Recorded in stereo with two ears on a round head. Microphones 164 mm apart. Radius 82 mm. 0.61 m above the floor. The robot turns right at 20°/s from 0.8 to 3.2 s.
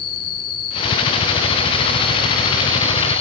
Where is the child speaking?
I don't hear a child speaking.